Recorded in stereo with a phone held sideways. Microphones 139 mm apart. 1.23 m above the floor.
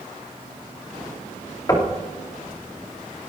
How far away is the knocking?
About 2.5 m.